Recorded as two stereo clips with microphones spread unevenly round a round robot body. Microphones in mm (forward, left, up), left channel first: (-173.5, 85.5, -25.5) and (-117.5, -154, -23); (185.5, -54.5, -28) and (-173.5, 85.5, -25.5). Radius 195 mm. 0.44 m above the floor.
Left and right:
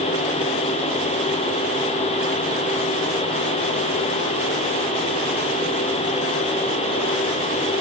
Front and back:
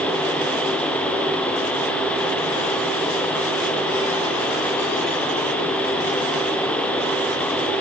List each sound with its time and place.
Only background noise.